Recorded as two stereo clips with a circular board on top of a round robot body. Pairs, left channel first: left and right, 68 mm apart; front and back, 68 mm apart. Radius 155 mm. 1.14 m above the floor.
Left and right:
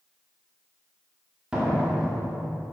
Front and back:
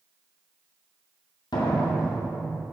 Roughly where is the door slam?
Ahead.